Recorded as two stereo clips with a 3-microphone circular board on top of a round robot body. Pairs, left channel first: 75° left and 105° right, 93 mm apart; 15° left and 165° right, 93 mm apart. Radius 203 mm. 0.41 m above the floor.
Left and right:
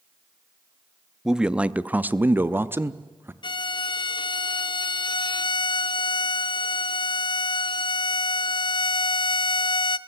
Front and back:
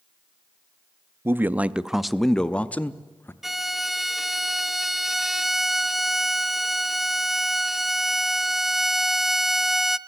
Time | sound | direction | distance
1.2 | a man speaking | straight behind | 0.9 m
3.4 | a violin | 110° left | 0.6 m